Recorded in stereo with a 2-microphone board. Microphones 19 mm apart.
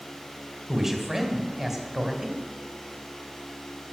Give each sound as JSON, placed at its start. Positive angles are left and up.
{"t": 0.7, "sound": "a man speaking", "side_deg": -15, "distance_m": 2.5}